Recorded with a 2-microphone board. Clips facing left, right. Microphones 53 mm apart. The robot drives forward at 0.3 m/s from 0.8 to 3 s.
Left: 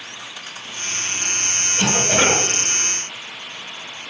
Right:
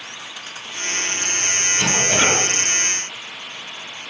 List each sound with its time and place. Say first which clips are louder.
1.8 s a cough: left 2 dB; 30° left (ahead or behind), 1.7 m